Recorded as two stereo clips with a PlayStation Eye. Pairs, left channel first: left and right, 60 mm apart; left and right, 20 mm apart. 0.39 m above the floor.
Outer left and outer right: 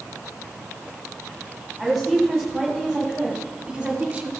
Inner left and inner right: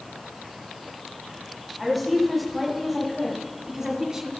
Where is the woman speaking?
15° left (ahead or behind), 2.5 m; by 4.3 s 20° right (ahead or behind), 1.2 m.